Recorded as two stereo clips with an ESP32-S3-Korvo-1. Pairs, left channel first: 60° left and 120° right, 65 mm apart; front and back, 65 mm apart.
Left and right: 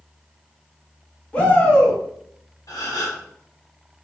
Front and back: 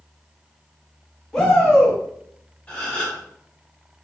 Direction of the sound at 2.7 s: 65° left.